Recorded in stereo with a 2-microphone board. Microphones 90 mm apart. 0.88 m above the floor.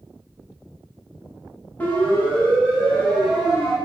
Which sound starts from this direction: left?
A siren, at 1.8 s.